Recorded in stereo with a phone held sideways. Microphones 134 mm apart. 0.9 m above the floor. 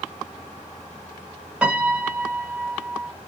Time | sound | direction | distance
1.6 | a piano | 10° right (ahead or behind) | 2.0 m